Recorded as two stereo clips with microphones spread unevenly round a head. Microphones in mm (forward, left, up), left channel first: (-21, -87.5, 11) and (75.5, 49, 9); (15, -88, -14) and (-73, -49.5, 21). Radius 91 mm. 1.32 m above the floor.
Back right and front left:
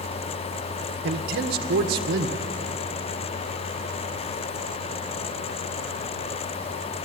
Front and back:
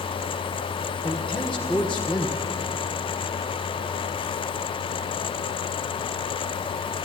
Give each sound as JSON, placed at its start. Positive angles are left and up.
{"t": 1.0, "sound": "a man speaking", "azimuth_deg": 55, "distance_m": 1.2}